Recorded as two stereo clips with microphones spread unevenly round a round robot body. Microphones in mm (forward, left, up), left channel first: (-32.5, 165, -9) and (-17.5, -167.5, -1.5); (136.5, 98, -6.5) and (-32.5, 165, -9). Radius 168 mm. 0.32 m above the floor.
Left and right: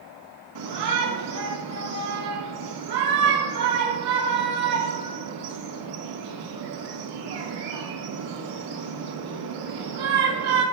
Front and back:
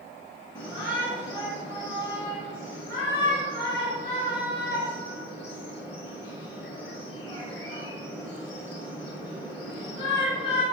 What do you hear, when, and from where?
0.6 s a shout: 95° right, 1.6 m